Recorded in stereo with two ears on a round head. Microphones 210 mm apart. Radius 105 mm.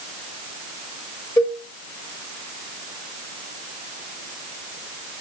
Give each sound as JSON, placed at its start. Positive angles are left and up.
{"t": 1.4, "sound": "a cowbell", "side_deg": 15, "distance_m": 4.0}